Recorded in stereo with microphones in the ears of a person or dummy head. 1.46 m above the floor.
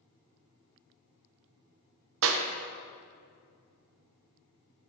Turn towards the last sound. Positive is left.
turn(degrees=-75)  # may be behind; listen again after turning